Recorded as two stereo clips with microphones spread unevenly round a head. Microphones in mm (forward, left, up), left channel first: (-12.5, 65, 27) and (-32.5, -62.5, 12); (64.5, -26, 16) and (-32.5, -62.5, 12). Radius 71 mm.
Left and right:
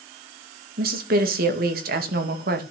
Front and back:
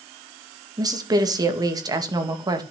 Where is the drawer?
No drawer in this recording.